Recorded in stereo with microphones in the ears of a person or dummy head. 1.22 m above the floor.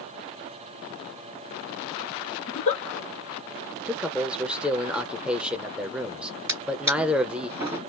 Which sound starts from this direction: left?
A giggle, at 2.5 s.